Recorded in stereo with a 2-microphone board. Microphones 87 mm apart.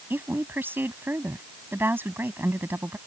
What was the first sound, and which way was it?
A woman speaking, 25° right (ahead or behind).